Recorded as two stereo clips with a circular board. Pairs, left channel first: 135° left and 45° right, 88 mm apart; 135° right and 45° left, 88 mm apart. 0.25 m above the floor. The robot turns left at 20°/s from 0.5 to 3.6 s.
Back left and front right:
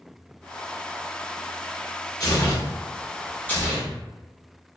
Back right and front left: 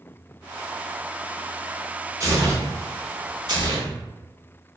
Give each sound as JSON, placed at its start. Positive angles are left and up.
{"t": 2.2, "sound": "tearing paper", "azimuth_deg": 90, "distance_m": 1.2}